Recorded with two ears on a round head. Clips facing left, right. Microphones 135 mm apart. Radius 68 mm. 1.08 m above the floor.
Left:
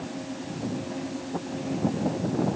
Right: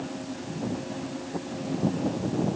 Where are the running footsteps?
I don't hear running footsteps.